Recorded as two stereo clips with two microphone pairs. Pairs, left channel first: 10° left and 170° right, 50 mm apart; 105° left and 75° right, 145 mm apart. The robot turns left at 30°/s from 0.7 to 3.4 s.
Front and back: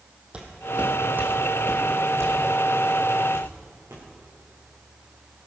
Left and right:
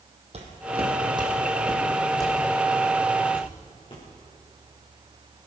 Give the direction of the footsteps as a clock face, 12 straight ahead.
4 o'clock.